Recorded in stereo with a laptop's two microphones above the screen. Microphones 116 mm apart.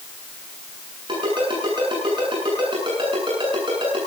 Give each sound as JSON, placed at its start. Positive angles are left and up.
{"t": 1.1, "sound": "a ringtone", "side_deg": -45, "distance_m": 8.0}